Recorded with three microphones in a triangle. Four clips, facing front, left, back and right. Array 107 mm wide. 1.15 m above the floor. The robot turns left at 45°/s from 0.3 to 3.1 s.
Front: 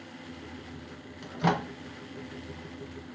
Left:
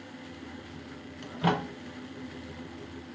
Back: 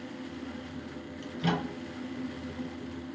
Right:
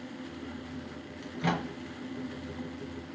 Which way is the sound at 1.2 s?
50° left.